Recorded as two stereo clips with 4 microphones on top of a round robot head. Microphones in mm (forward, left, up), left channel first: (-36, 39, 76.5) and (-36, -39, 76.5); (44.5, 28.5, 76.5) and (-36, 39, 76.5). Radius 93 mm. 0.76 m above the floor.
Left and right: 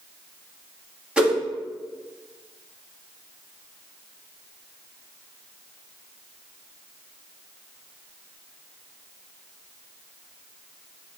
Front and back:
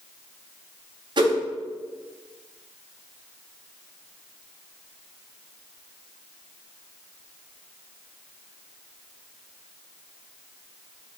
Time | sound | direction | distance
1.2 | a whoosh | 165° right | 1.5 m